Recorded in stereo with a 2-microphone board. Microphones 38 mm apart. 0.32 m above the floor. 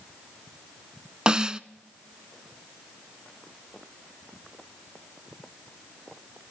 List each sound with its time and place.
1.3 s a snare drum: 25° right (ahead or behind), 0.6 m